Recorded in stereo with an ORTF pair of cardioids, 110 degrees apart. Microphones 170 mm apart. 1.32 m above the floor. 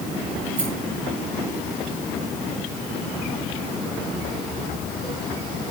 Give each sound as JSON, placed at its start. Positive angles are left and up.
{"t": 0.6, "sound": "a rattle", "azimuth_deg": -60, "distance_m": 7.5}